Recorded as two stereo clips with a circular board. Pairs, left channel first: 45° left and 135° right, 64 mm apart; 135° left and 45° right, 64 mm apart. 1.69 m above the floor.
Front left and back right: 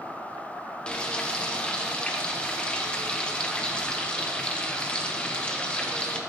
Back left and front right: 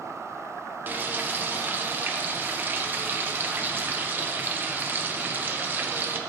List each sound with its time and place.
0.9 s frying: 15° right, 0.9 m